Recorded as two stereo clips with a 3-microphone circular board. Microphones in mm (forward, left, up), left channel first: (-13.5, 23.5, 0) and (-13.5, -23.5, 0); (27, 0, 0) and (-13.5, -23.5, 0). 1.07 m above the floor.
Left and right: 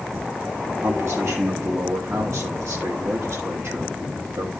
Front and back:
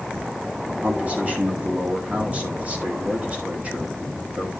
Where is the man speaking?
95° right, 2 m.